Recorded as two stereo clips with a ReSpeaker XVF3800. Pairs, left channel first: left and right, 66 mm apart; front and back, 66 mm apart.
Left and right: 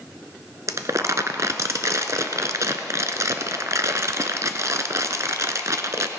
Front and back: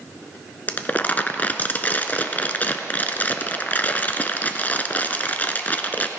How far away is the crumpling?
About 0.7 m.